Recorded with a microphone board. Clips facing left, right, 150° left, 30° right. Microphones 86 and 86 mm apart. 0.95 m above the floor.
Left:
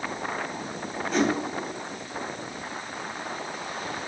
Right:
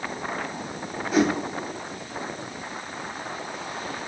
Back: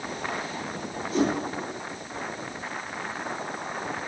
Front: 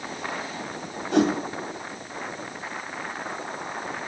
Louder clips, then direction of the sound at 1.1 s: Right 3 dB, front 4 dB; 5° right.